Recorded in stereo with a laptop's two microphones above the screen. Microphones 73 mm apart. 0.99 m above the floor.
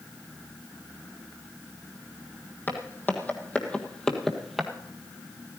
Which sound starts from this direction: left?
Footsteps, at 2.7 s.